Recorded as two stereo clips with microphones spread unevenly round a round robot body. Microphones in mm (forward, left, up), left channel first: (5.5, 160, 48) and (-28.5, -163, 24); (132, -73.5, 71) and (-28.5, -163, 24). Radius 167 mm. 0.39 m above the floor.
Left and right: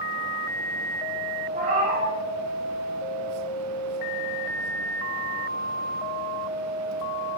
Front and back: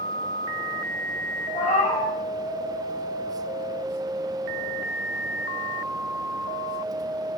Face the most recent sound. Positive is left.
turn(degrees=-30)